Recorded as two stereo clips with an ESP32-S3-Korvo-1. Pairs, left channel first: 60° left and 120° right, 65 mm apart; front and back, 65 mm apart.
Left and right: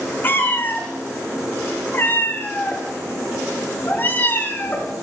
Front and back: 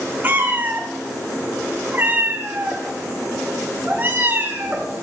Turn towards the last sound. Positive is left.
turn(degrees=120)